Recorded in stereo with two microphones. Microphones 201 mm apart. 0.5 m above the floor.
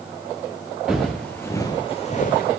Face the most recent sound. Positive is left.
turn(degrees=50)  # may be behind; listen again after turning